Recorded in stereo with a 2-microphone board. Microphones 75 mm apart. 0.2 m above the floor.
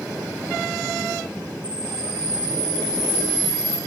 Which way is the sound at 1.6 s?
55° left (ahead or behind).